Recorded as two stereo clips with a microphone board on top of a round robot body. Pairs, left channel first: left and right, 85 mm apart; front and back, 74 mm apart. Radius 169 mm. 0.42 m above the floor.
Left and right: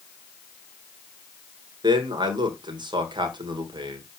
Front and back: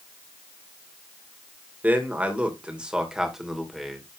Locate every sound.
1.8 s a man speaking: 115° right, 3 m; by 4.0 s 90° right, 2.5 m